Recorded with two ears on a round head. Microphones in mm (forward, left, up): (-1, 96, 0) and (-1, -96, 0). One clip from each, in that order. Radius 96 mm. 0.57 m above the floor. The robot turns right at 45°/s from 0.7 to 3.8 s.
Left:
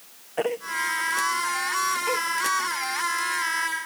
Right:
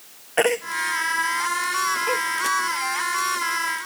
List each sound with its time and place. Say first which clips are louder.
0.4 s a baby crying: right 5 dB; 60° right (ahead or behind); by 2.2 s 10° left (ahead or behind)